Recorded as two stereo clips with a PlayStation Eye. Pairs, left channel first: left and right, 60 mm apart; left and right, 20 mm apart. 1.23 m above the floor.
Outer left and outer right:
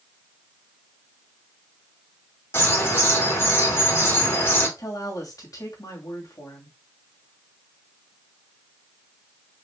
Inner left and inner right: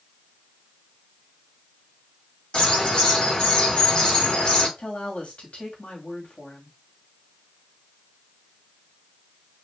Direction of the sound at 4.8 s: 70° left (ahead or behind).